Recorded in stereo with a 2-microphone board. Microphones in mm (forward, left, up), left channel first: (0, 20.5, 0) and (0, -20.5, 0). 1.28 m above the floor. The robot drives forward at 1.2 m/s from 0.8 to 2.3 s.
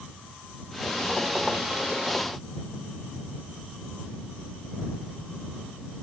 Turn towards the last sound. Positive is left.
No sound to turn to.